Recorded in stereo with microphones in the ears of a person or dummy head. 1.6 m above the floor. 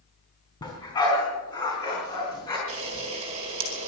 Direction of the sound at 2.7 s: 35° right (ahead or behind).